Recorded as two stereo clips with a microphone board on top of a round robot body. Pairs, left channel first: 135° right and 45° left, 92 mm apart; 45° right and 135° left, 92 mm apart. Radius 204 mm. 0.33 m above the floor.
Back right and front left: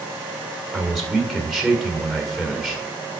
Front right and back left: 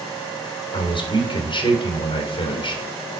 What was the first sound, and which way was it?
A man speaking, 45° right.